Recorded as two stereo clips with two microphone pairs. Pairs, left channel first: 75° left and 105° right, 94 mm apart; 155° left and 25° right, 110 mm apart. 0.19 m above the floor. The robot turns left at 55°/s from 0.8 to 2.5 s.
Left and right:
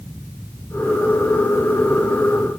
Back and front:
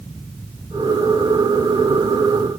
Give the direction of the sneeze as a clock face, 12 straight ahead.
I don't hear a sneeze.